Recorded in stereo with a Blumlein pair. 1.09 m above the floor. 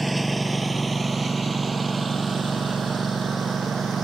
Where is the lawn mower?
5° right; by 4.0 s 15° right.